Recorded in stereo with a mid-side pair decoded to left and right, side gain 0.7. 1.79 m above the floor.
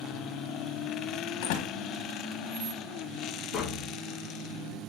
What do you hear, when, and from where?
1.4 s a door slam: 70° left, 2.0 m
3.5 s tapping: 40° left, 1.4 m